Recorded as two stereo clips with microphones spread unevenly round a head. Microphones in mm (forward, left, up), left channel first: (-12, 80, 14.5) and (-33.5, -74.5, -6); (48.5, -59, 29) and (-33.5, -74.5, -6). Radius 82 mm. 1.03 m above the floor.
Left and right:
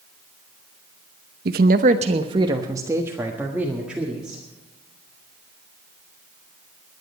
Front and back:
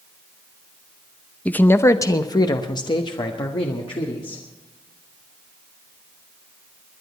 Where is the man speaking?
70° right, 0.7 m; by 4.4 s 10° right, 2.0 m.